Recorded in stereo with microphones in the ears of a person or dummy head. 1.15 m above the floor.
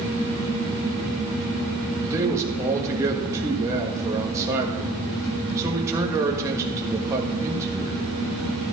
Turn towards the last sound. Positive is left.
turn(degrees=-15)  # may be behind; listen again after turning